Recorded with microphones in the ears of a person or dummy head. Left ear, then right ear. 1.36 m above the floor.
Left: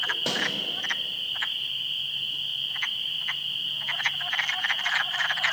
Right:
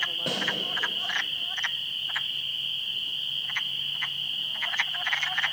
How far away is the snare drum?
About 4 m.